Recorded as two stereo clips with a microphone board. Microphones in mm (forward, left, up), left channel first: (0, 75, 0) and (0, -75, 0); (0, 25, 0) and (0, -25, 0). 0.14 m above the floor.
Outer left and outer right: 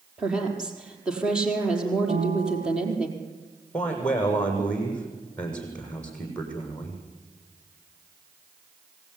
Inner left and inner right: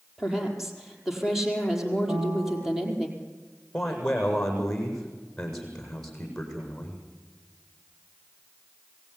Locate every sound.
0.2 s a woman speaking: 5° right (ahead or behind), 5 m
2.1 s a piano: 50° right (ahead or behind), 1.1 m
3.7 s a man speaking: 10° left (ahead or behind), 7.5 m